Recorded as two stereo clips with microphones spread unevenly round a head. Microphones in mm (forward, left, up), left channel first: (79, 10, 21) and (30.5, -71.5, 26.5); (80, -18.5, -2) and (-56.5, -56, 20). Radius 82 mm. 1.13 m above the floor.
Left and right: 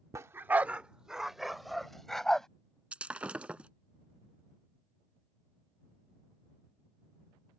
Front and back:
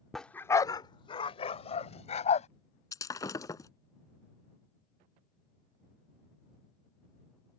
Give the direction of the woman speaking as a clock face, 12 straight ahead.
I don't hear a woman speaking.